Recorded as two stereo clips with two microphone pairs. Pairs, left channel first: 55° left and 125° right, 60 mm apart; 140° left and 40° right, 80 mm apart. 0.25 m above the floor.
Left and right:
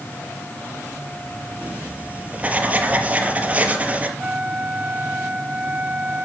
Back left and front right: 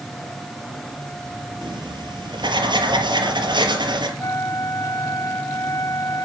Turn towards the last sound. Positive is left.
turn(degrees=180)